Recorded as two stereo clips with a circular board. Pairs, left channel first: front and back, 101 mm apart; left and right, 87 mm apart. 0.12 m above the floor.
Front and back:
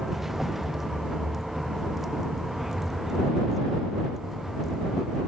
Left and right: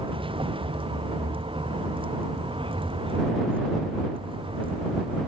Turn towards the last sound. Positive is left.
turn(degrees=-90)